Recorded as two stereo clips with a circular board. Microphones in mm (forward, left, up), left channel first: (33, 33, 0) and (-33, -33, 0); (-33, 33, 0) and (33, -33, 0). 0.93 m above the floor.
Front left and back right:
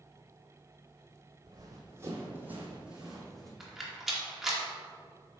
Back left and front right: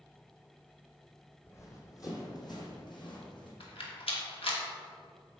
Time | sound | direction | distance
1.4 | running footsteps | 170° right | 1.6 m
3.6 | a rattle | 140° left | 1.2 m